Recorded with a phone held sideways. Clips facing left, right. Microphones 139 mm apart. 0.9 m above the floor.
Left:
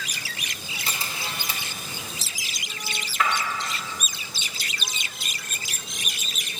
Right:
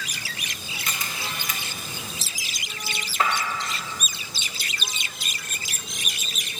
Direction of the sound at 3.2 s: 35° right (ahead or behind).